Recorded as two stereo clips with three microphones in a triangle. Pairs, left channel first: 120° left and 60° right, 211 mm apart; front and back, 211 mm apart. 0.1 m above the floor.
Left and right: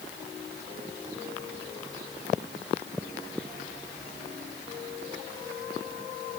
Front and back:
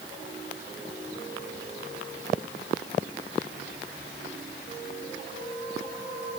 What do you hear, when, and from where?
Only background noise.